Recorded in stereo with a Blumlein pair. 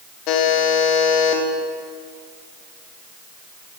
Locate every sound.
0.3 s a buzzer: 40° left, 0.8 m